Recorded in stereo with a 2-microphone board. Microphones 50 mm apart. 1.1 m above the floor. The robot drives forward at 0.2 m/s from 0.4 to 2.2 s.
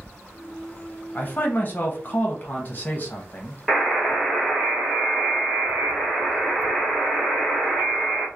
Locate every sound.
1.1 s a man speaking: 35° left (ahead or behind), 0.6 m
3.7 s a buzzer: 10° right (ahead or behind), 1.2 m